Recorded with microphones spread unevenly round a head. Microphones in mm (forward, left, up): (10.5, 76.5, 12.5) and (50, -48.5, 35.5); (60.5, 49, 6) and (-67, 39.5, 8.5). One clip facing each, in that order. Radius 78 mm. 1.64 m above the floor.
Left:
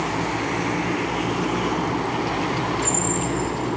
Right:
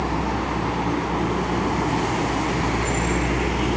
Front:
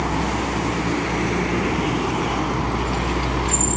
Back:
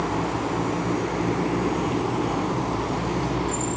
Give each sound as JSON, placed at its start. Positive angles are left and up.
{"t": 0.0, "sound": "a vehicle", "azimuth_deg": -35}